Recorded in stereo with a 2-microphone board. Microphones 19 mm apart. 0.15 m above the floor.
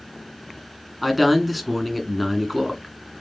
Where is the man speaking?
Centre (ahead or behind), 1.5 m.